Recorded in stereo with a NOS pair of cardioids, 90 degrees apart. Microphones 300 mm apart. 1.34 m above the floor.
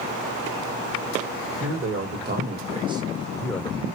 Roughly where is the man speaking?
Ahead right.